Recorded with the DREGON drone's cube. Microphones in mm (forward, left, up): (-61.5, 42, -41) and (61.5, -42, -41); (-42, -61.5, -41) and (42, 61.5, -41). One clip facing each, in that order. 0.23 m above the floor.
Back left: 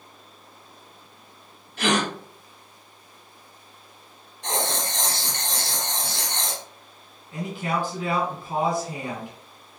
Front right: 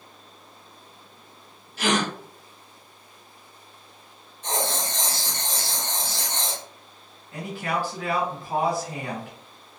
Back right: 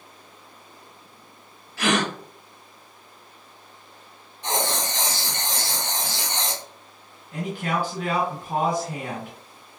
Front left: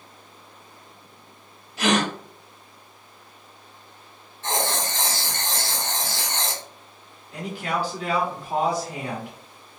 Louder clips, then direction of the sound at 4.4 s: Even, even; 165° left.